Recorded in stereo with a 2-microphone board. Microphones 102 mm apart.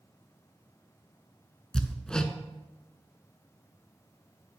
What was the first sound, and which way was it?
Hammering, 10° left (ahead or behind).